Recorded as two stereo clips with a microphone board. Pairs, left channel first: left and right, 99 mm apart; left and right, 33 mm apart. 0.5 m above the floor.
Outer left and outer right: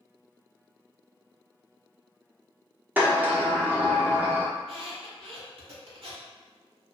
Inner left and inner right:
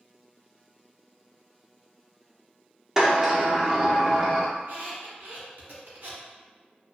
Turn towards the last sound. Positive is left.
turn(degrees=-80)